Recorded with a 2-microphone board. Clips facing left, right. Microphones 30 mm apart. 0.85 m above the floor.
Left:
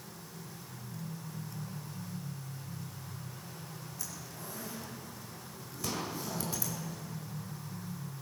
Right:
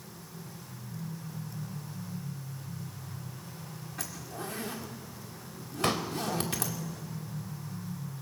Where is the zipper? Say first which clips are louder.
Right 9 dB; 75° right (ahead or behind), 2 m.